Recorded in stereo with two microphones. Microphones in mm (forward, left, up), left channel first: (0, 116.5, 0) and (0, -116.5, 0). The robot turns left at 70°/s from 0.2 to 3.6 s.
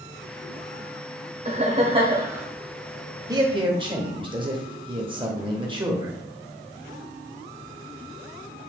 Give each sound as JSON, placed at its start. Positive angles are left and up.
{"t": 1.4, "sound": "laughter", "azimuth_deg": -100, "distance_m": 1.2}
{"t": 3.3, "sound": "a man speaking", "side_deg": -15, "distance_m": 0.8}